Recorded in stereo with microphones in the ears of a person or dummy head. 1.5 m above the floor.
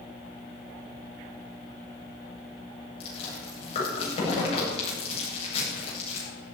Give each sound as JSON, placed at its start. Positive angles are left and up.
{"t": 3.0, "sound": "chewing", "side_deg": 35, "distance_m": 8.0}